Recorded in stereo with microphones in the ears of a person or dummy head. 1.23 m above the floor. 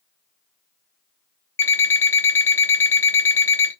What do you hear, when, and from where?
1.6 s an alarm clock: 15° left (ahead or behind), 0.8 m